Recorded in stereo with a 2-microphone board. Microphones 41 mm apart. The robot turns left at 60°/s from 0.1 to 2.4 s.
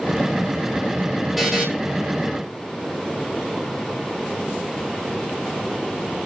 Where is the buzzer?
5° right (ahead or behind), 4.5 m; by 1.7 s 20° right (ahead or behind), 4.5 m.